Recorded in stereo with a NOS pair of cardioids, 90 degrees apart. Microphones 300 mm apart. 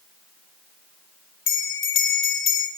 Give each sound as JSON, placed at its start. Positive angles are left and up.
{"t": 1.5, "sound": "a bell", "azimuth_deg": 45, "distance_m": 0.7}